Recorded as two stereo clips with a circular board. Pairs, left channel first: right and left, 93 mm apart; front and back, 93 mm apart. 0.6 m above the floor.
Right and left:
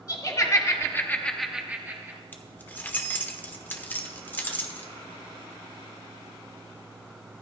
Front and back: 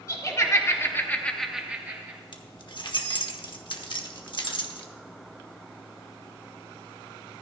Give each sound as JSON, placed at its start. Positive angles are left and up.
{"t": 0.1, "sound": "laughter", "azimuth_deg": -50, "distance_m": 2.0}
{"t": 2.3, "sound": "keys jangling", "azimuth_deg": -20, "distance_m": 1.1}